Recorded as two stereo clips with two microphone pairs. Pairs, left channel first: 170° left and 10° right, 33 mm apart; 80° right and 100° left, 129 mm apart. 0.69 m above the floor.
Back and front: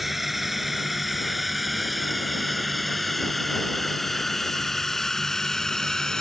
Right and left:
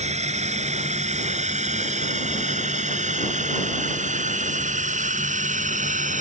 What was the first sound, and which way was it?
A drone, 70° left.